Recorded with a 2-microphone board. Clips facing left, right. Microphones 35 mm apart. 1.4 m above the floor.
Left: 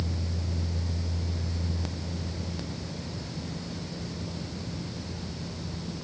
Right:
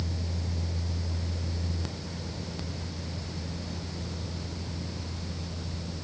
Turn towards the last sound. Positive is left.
No sound to turn to.